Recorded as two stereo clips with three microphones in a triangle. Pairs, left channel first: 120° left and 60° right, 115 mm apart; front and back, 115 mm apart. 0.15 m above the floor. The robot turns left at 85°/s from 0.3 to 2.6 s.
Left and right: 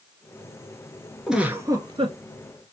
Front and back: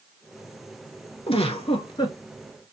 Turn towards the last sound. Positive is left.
turn(degrees=-85)